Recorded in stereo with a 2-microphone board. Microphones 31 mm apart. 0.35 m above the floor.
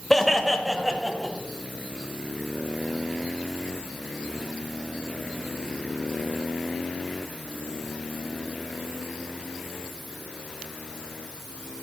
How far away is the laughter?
About 1.4 m.